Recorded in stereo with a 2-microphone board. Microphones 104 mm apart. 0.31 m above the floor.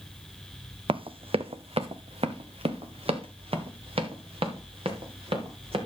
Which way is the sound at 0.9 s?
60° right (ahead or behind).